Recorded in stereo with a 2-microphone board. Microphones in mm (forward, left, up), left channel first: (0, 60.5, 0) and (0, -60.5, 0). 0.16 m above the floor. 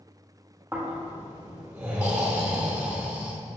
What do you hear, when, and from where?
0.7 s snoring: 15° right (ahead or behind), 3 m